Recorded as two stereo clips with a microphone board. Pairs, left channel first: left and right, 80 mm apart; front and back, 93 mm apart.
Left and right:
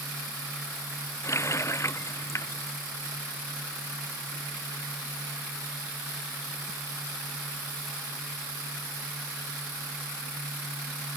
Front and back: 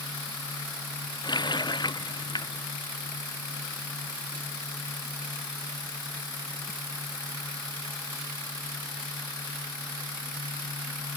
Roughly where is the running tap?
Ahead left.